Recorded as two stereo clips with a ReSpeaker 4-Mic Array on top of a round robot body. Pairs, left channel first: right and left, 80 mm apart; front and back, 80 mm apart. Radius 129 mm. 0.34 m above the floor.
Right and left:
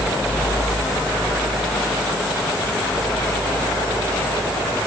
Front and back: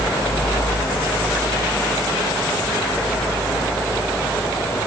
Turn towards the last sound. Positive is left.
No sound to turn to.